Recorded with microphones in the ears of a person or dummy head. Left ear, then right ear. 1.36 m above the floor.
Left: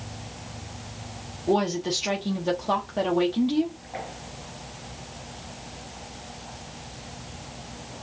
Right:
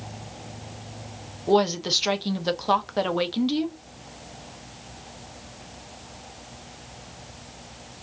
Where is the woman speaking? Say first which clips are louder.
Right 3 dB; 40° right (ahead or behind), 1.2 m.